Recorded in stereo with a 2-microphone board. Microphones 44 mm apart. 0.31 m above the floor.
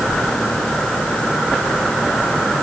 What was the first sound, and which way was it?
Only background noise.